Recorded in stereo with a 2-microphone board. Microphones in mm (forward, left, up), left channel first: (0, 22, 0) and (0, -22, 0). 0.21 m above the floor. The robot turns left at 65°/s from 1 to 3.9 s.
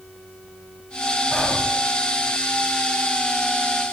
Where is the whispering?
15° left (ahead or behind), 1.0 m; by 1.6 s 20° left (ahead or behind), 1.0 m.